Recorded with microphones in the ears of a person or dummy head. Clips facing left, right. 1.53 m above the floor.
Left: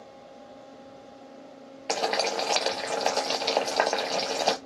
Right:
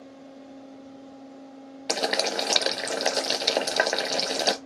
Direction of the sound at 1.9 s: 20° right (ahead or behind).